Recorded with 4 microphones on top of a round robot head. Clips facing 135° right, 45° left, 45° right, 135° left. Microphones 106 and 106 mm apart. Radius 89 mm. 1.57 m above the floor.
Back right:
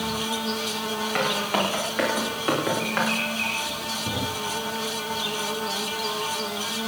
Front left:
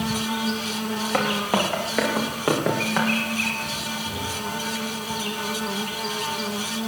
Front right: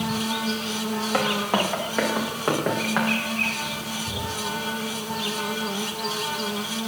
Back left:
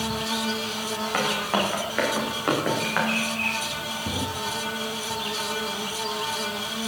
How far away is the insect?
About 1.9 m.